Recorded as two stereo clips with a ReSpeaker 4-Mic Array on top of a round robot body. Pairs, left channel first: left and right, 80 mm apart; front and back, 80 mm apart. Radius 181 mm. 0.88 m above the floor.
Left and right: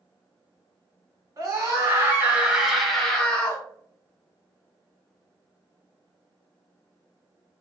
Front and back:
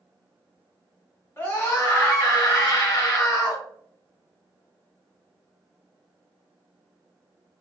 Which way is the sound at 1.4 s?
65° right.